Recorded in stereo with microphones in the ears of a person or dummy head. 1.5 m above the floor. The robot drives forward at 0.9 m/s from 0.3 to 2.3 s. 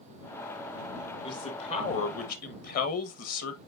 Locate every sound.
1.2 s a man speaking: 30° left (ahead or behind), 2 m; by 3.6 s 50° left (ahead or behind), 1.5 m